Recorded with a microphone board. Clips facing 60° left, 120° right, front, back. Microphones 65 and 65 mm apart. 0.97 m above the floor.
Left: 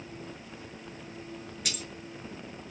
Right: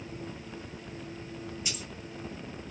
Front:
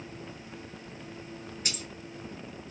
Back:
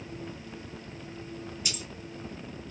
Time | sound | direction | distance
1.6 | keys jangling | 40° left | 2.5 m